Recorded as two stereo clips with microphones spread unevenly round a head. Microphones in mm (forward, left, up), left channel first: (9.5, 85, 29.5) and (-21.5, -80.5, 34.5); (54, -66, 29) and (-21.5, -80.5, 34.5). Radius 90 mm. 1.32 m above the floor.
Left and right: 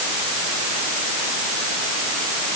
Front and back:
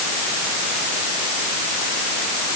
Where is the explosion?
I don't hear an explosion.